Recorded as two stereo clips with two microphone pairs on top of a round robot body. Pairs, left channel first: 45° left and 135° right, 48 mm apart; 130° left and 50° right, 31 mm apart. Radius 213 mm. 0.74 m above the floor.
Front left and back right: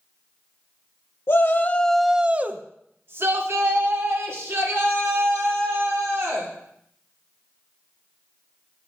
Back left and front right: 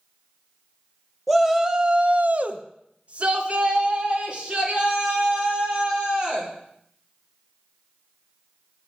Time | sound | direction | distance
1.3 | a shout | 35° left | 0.8 m